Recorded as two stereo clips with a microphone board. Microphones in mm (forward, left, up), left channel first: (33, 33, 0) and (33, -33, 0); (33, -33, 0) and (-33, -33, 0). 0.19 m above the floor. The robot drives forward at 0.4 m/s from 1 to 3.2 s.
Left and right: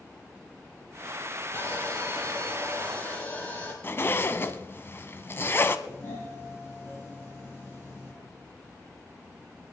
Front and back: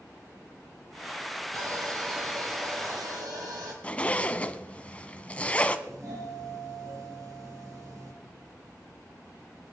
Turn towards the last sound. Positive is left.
turn(degrees=150)